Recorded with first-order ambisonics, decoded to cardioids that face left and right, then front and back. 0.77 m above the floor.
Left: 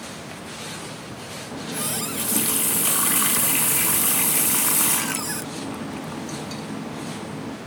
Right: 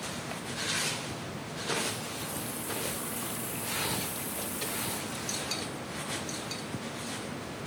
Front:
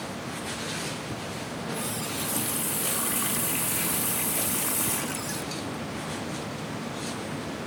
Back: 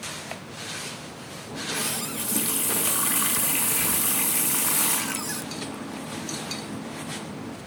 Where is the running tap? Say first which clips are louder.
Left 2 dB, back 7 dB; 105° left.